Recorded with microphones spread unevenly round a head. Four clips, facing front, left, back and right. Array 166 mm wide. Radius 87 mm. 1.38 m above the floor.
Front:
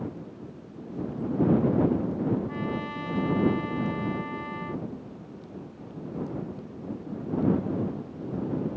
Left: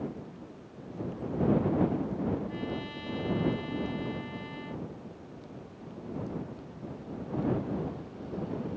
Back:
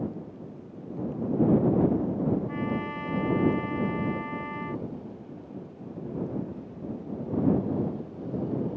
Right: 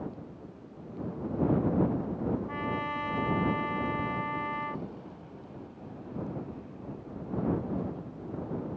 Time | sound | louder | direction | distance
2.5 | a trumpet | right 3 dB, back 1 dB | 70° right | ?